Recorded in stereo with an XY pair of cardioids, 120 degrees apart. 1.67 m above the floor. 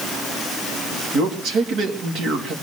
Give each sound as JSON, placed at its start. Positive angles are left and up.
{"t": 1.1, "sound": "a man speaking", "azimuth_deg": -65, "distance_m": 3.0}